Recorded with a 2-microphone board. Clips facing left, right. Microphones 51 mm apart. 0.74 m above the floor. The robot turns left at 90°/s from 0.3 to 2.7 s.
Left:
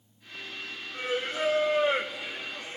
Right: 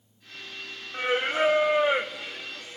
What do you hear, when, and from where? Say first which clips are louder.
0.9 s singing: right 6 dB; 70° right, 0.6 m; by 2.8 s 130° left, 0.6 m